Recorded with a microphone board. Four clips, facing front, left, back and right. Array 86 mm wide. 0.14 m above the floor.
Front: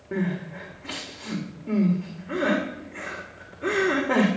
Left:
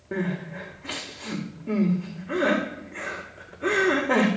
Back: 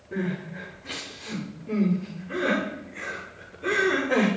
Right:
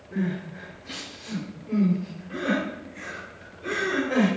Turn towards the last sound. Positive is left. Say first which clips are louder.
# even, front 2 dB
turn(degrees=55)